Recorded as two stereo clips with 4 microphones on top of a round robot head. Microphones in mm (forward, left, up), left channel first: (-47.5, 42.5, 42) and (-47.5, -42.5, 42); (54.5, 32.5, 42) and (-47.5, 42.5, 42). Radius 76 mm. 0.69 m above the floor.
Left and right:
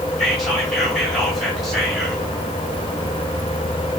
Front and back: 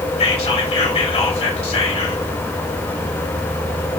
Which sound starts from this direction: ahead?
Whispering, at 0.2 s.